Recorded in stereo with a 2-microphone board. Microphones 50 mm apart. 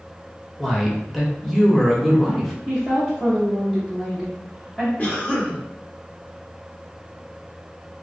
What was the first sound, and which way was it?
A man speaking, 5° right (ahead or behind).